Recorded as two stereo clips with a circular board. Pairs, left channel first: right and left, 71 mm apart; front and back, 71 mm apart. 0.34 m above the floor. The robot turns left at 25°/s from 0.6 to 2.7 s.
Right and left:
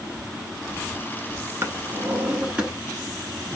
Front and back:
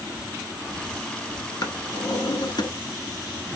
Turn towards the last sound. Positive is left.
turn(degrees=10)